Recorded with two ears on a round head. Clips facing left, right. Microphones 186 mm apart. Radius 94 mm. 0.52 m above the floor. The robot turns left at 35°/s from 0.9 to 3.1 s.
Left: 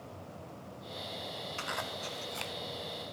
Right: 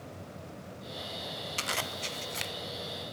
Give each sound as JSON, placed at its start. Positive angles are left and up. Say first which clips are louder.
{"t": 1.6, "sound": "a zipper", "louder": "right 2 dB", "side_deg": -45, "distance_m": 0.6}